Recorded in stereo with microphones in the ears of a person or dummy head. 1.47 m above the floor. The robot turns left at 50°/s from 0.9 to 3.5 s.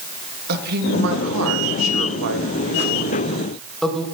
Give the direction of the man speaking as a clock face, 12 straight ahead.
2 o'clock.